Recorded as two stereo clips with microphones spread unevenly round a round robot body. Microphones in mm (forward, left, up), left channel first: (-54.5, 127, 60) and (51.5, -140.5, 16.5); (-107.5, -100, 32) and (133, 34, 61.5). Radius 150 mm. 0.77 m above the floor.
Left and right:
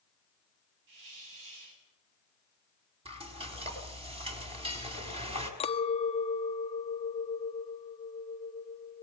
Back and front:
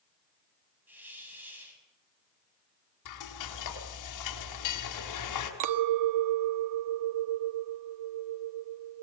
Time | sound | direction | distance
0.9 | a hiss | 55° right | 7 m
3.0 | frying | 140° right | 4.5 m
5.6 | a clink | 40° left | 1.0 m